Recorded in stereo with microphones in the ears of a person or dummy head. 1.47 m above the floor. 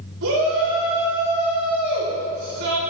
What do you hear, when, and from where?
0.2 s a shout: 65° right (ahead or behind), 4.5 m